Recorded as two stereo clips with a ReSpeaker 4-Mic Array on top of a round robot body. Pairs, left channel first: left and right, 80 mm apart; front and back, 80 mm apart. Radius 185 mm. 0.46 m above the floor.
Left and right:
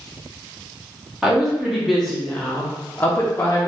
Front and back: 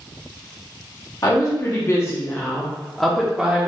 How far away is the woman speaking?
About 1.2 m.